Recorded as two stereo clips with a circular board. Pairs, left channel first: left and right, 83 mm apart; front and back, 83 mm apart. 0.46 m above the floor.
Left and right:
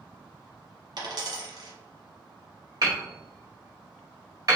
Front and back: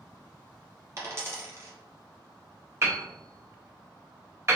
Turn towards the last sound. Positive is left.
turn(degrees=-130)